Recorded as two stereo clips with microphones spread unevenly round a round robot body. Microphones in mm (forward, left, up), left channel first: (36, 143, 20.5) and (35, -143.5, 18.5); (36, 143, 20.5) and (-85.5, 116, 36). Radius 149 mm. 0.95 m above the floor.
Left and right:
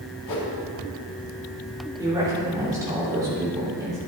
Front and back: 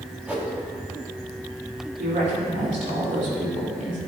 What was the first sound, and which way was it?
A whoosh, 110° left.